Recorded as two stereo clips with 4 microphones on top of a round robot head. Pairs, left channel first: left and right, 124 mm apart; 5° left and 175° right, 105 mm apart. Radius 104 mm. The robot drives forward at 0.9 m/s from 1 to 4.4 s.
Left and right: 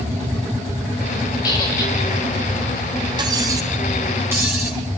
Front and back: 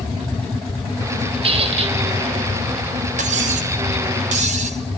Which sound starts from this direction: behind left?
A squeak, at 1.4 s.